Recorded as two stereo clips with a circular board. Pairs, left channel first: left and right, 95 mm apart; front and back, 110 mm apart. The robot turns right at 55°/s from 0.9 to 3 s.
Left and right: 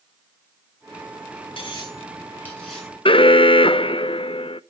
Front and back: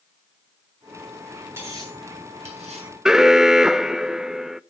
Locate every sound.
1.6 s cutlery clinking: 115° left, 8.5 m; by 2.9 s 175° right, 8.5 m
3.0 s an alarm: 95° left, 0.5 m